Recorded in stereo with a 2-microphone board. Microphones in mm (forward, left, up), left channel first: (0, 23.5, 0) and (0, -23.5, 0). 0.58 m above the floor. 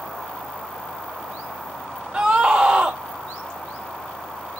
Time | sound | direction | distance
2.1 | a scream | 15° right (ahead or behind) | 1.4 m